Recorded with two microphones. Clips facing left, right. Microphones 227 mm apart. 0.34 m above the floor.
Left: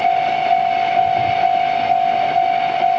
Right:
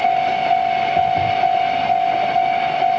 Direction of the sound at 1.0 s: 85° right.